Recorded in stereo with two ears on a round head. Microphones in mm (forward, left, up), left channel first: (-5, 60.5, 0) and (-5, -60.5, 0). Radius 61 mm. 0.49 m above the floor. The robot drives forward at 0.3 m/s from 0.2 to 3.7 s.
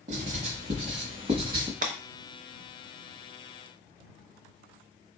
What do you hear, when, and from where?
0.1 s writing: 55° right (ahead or behind), 1.0 m; by 1.7 s 40° right (ahead or behind), 1.3 m
1.8 s breaking glass: 65° right (ahead or behind), 0.7 m; by 2.0 s 60° right (ahead or behind), 0.7 m